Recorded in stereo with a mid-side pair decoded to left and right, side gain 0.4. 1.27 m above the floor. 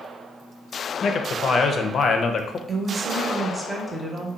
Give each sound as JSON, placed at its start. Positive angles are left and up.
{"t": 1.0, "sound": "a man speaking", "azimuth_deg": 55, "distance_m": 0.5}
{"t": 2.7, "sound": "a woman speaking", "azimuth_deg": -20, "distance_m": 1.0}